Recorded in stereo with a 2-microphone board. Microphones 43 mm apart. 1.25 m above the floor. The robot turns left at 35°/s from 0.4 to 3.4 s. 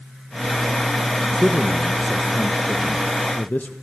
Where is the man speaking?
155° right, 0.9 m; by 3.7 s 135° left, 0.9 m.